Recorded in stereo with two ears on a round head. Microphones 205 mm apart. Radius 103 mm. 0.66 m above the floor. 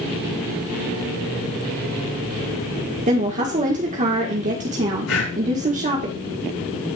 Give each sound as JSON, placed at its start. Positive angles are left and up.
{"t": 3.1, "sound": "a woman speaking", "side_deg": -35, "distance_m": 1.6}
{"t": 5.1, "sound": "breathing", "side_deg": 75, "distance_m": 5.0}